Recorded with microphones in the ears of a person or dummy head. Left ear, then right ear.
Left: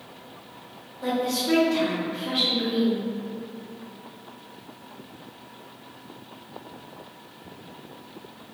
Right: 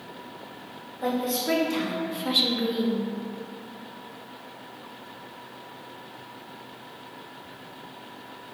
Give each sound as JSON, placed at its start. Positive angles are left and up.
{"t": 1.0, "sound": "a woman speaking", "side_deg": -30, "distance_m": 0.8}